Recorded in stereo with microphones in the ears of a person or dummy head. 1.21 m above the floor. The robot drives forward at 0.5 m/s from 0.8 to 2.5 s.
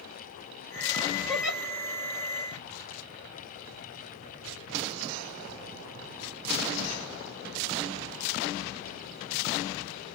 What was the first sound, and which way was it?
A giggle, 5° right (ahead or behind).